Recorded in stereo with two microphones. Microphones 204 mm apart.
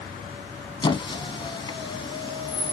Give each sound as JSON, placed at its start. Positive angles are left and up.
{"t": 0.8, "sound": "a squeak", "side_deg": 25, "distance_m": 0.7}